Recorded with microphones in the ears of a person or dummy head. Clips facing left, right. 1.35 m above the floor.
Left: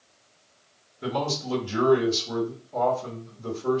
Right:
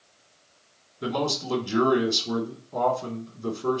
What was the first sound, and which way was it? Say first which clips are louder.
A man speaking: right 1 dB; 50° right (ahead or behind).